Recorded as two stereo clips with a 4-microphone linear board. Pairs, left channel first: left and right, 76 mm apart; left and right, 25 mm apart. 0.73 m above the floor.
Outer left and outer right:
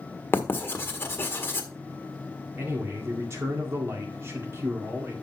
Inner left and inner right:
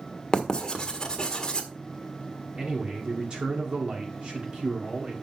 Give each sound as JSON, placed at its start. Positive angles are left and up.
{"t": 0.3, "sound": "writing", "side_deg": 30, "distance_m": 1.4}
{"t": 2.6, "sound": "a man speaking", "side_deg": -35, "distance_m": 2.0}